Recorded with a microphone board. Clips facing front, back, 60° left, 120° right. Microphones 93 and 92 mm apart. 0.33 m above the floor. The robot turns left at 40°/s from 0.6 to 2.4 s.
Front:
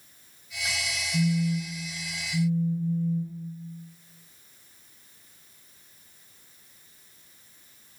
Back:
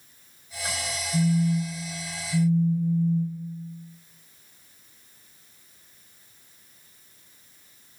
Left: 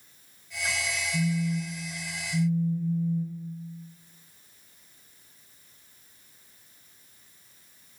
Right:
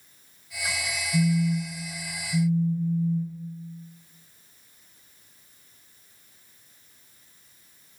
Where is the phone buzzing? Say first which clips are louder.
Back 3 dB, right 5 dB; 150° right, 0.9 m; by 3.4 s 160° left, 0.9 m.